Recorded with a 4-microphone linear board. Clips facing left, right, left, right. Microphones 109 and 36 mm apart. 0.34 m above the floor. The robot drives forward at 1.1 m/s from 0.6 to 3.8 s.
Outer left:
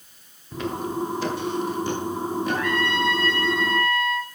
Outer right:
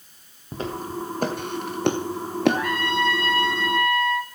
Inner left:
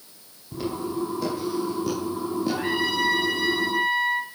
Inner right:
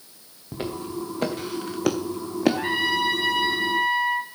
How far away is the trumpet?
About 9.5 m.